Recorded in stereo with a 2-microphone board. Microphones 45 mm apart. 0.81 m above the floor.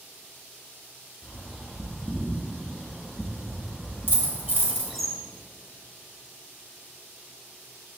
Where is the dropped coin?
45° left (ahead or behind), 2 m.